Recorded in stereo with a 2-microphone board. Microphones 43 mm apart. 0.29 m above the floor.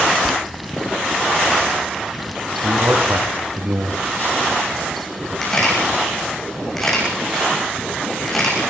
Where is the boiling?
Centre (ahead or behind), 0.7 m.